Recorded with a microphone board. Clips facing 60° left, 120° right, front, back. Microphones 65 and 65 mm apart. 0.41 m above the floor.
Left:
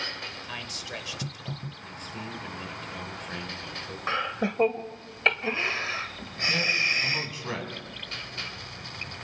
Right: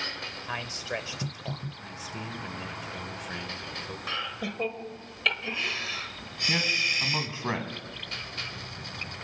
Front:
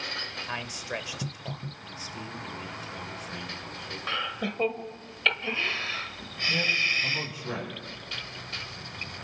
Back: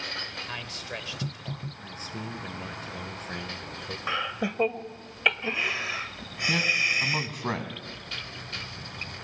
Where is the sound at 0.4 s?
70° right, 1.3 m.